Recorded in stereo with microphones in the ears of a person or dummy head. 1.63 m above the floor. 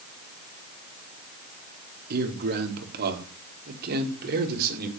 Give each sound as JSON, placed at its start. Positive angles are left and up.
{"t": 2.1, "sound": "a man speaking", "side_deg": -55, "distance_m": 3.5}